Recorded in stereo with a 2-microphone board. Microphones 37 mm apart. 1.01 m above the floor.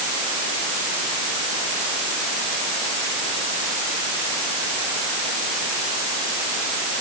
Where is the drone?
I don't hear a drone.